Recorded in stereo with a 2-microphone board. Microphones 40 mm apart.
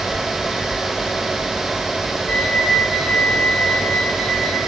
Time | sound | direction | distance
2.3 | a flute | 20° left (ahead or behind) | 10 m